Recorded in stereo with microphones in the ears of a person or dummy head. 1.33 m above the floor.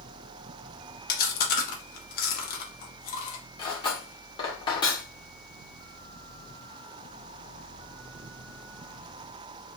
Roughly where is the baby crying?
No baby crying in this recording.